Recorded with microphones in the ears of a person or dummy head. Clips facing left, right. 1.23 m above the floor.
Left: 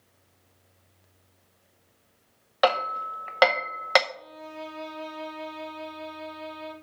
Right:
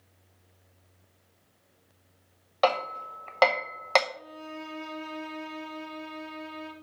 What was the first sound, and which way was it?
Hammering, 10° left (ahead or behind).